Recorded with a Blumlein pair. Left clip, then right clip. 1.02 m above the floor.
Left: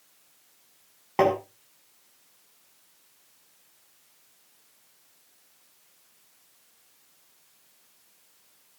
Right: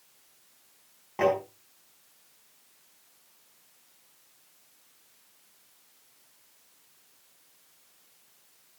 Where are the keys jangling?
I don't hear keys jangling.